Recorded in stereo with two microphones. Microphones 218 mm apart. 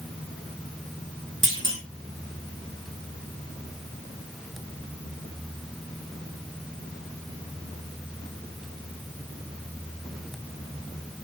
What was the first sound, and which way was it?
A clunk, 65° right (ahead or behind).